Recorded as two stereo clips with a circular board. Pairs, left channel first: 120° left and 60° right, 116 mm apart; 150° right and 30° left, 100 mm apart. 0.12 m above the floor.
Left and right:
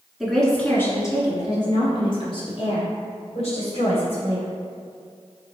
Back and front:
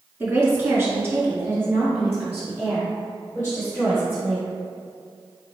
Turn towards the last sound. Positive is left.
turn(degrees=100)